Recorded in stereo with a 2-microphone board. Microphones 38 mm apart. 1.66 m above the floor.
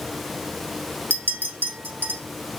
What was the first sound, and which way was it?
A clink, 60° right (ahead or behind).